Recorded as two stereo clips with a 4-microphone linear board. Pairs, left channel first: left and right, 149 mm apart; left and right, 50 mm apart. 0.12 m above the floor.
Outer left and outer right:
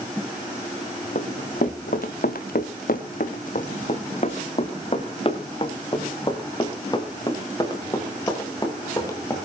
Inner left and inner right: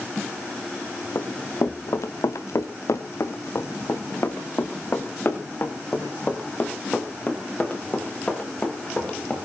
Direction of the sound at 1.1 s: 60° left (ahead or behind).